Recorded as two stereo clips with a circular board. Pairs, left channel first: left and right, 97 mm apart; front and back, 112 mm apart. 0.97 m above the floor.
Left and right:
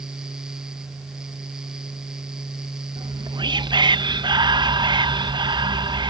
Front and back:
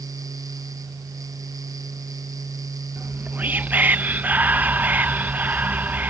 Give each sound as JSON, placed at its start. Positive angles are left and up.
{"t": 3.0, "sound": "whispering", "azimuth_deg": -110}